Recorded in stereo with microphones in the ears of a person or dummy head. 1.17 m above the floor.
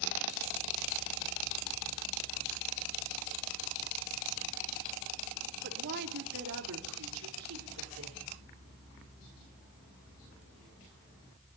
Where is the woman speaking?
50° right (ahead or behind), 3 m; by 8.2 s 80° right, 5 m.